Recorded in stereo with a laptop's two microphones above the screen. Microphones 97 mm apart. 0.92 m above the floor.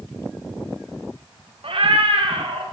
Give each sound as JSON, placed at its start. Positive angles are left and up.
{"t": 1.6, "sound": "a cat meowing", "side_deg": -65, "distance_m": 0.8}